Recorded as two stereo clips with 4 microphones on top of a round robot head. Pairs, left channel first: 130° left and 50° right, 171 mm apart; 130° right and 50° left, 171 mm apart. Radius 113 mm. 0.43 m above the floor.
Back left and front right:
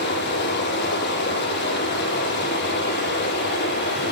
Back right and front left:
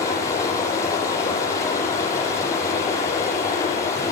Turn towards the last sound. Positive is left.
turn(degrees=160)